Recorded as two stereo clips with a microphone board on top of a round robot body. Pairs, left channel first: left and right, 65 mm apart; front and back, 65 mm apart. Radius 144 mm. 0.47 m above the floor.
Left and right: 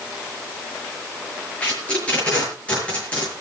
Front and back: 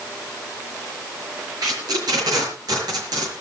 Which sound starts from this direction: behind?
Tape being pulled, at 1.6 s.